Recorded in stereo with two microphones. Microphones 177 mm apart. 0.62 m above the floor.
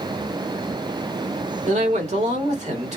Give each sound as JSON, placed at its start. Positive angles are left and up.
{"t": 1.7, "sound": "a man speaking", "side_deg": -40, "distance_m": 1.5}